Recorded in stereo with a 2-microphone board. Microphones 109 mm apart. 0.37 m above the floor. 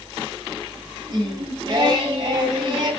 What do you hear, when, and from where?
1.1 s singing: 40° right (ahead or behind), 2.5 m